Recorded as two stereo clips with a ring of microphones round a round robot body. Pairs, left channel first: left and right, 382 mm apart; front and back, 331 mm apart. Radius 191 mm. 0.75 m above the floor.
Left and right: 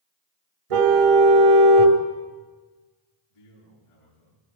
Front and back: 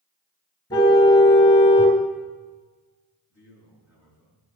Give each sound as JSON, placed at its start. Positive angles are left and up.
{"t": 0.7, "sound": "a car horn", "azimuth_deg": -80, "distance_m": 2.5}
{"t": 3.3, "sound": "a man speaking", "azimuth_deg": 95, "distance_m": 8.0}